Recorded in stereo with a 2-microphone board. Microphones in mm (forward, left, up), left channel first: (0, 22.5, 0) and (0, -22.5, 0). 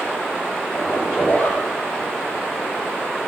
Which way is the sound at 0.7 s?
45° left (ahead or behind).